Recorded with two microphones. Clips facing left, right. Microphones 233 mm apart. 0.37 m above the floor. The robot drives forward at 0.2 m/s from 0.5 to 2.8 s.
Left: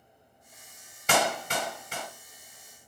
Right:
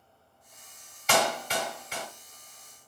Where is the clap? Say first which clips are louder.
Even; 55° left (ahead or behind), 2 m; by 2.1 s 50° left (ahead or behind), 2 m.